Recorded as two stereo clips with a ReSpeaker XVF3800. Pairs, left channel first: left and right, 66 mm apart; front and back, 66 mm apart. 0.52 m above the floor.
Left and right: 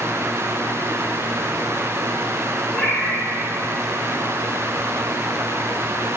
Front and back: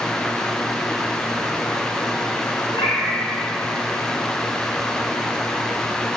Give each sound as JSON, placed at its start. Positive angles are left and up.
{"t": 2.7, "sound": "a cat meowing", "azimuth_deg": 5, "distance_m": 3.0}